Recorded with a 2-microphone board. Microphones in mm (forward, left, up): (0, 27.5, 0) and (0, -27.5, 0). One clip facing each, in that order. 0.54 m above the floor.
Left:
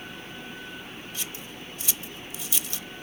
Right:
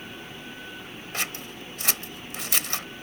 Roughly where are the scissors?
Right.